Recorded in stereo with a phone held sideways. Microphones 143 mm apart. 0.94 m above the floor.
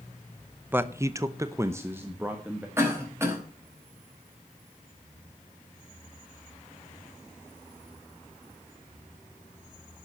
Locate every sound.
0.7 s a man speaking: 15° right (ahead or behind), 0.8 m; by 2.7 s 10° right (ahead or behind), 1.8 m
2.8 s a cough: 15° right (ahead or behind), 5.5 m